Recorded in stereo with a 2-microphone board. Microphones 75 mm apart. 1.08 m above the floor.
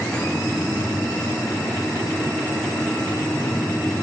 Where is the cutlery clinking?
I don't hear cutlery clinking.